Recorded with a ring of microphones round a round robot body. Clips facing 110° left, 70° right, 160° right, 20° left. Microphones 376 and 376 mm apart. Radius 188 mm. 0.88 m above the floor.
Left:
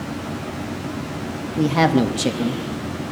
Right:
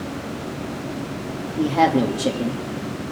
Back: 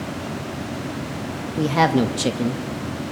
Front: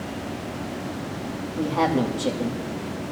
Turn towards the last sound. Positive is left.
turn(degrees=165)